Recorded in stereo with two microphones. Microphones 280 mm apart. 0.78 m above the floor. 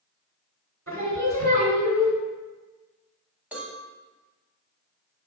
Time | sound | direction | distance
0.9 | singing | 65° right (ahead or behind) | 1.3 m
3.5 | a cowbell | 5° right (ahead or behind) | 0.9 m